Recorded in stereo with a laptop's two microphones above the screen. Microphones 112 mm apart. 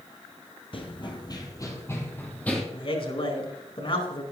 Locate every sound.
0.7 s running footsteps: 50° left (ahead or behind), 1.5 m; by 2.6 s 10° left (ahead or behind), 2 m
2.7 s a man speaking: 50° left (ahead or behind), 4 m